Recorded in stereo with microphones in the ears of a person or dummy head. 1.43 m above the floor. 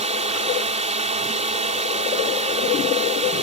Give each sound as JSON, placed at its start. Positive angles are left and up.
{"t": 0.0, "sound": "a drone", "side_deg": -30}